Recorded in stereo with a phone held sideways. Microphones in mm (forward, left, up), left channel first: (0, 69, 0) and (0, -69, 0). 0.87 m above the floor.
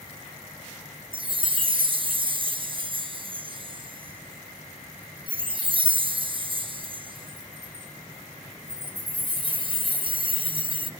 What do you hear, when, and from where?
1.1 s a chime: 40° right (ahead or behind), 0.9 m